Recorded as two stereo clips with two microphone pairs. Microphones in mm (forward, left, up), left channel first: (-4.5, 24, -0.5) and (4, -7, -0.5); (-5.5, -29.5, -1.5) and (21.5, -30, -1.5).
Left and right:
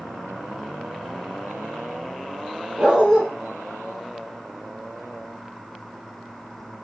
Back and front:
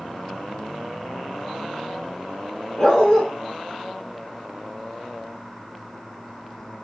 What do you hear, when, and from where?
2.8 s a dog barking: 125° right, 1.9 m